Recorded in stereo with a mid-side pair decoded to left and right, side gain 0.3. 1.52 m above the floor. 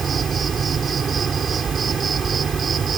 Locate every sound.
0.0 s an insect: 65° right